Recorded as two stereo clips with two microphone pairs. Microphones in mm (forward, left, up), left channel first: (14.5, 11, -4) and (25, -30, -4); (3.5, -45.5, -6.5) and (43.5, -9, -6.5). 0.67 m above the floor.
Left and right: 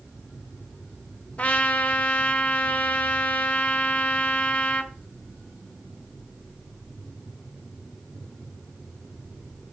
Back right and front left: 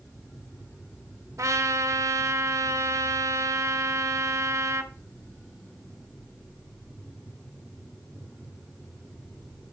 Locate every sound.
1.4 s a trumpet: 45° left, 0.9 m